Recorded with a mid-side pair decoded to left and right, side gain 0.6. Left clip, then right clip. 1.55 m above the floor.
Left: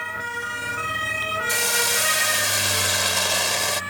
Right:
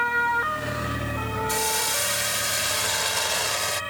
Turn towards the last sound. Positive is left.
turn(degrees=15)